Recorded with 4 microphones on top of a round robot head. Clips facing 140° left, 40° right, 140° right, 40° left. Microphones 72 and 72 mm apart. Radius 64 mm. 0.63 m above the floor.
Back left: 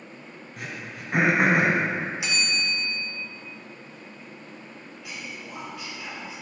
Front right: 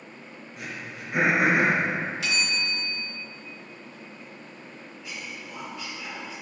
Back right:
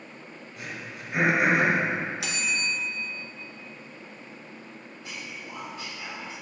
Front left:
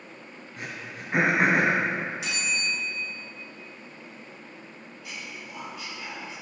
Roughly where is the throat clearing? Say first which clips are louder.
Back left 1 dB, front left 1 dB; left.